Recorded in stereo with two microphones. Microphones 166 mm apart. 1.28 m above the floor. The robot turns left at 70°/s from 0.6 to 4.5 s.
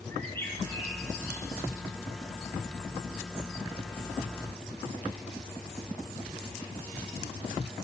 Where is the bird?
15° left (ahead or behind), 2.5 m; by 1.7 s 70° left (ahead or behind), 2.5 m.